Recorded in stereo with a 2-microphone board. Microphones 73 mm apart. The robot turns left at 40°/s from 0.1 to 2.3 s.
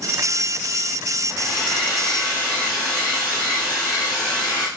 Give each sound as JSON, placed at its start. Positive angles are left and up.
{"t": 1.3, "sound": "a hair dryer", "side_deg": -10, "distance_m": 1.7}